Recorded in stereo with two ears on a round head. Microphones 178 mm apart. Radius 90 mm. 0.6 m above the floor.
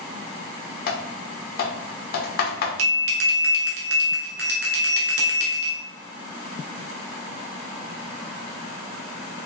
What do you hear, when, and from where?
0.9 s typing on a keyboard: 50° left (ahead or behind), 0.8 m
2.8 s a bell: 55° right (ahead or behind), 1.2 m